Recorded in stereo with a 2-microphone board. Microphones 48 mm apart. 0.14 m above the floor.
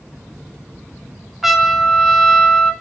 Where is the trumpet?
5° right (ahead or behind), 0.6 m.